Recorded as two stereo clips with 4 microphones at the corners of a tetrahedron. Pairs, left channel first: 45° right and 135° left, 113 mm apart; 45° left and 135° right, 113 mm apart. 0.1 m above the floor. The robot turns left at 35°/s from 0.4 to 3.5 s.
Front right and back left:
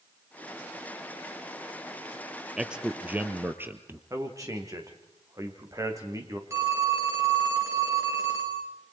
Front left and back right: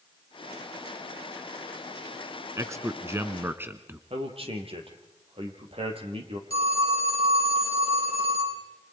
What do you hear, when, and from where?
2.6 s a man speaking: 150° right, 1.3 m; by 4.0 s straight behind, 1.3 m
4.1 s a man speaking: 165° right, 4 m
6.5 s a phone ringing: 160° right, 4.5 m